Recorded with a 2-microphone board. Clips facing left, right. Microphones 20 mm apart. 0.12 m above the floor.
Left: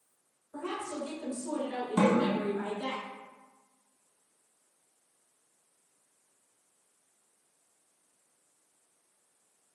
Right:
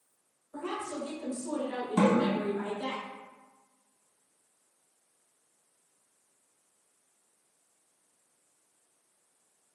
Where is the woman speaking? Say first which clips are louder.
Right 1 dB; 5° right (ahead or behind), 1.2 m.